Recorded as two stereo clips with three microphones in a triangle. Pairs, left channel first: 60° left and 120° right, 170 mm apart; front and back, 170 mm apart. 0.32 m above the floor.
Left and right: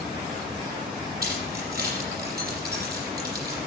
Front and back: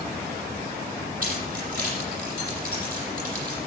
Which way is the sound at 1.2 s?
145° right.